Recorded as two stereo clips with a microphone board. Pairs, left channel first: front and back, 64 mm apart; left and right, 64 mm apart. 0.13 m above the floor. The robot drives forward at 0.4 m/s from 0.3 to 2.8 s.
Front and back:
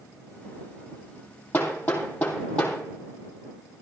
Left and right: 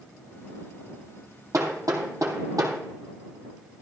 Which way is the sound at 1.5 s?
60° right.